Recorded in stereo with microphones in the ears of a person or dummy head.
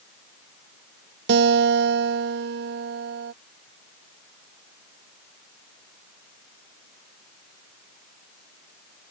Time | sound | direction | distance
1.3 | a guitar | 55° right (ahead or behind) | ?